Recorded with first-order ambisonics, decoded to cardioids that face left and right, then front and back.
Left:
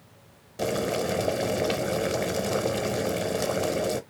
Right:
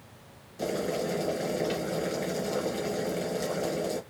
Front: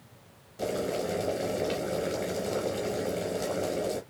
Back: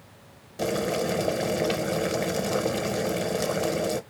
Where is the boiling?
130° left, 0.6 m.